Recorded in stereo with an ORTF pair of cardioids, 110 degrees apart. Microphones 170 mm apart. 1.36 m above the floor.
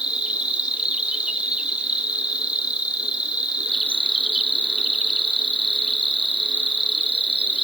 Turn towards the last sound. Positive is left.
turn(degrees=-5)